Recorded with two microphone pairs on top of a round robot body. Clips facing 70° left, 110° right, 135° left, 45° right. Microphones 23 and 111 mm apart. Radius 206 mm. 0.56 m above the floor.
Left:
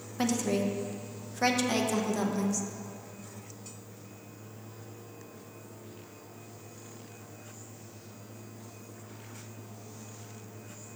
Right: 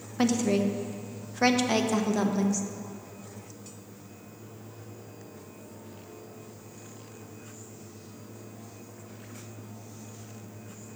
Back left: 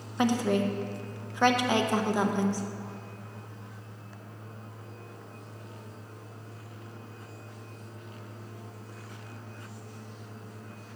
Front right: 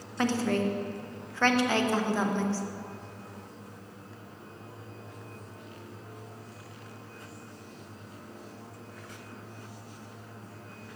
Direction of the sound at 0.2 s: 165° right.